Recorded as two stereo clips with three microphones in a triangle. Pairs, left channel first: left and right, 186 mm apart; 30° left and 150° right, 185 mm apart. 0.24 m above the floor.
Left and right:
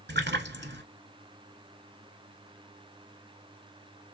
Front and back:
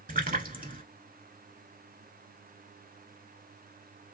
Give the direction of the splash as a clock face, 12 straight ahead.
4 o'clock.